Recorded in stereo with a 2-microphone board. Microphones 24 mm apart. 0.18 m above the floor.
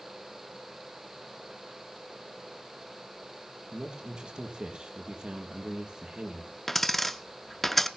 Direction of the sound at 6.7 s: 10° left (ahead or behind).